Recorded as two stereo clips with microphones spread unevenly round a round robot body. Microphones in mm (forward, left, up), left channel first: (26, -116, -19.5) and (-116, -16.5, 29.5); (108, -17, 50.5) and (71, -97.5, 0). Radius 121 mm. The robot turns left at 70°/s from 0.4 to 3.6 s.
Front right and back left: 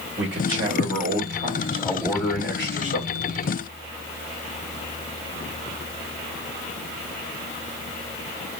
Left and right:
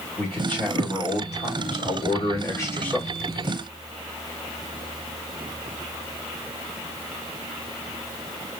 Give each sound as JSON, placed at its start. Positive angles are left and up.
{"t": 0.2, "sound": "a man speaking", "azimuth_deg": 155, "distance_m": 2.5}